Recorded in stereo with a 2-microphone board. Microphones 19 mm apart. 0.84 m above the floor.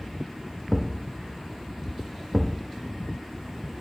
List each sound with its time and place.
0.7 s a thud: 10° right (ahead or behind), 0.5 m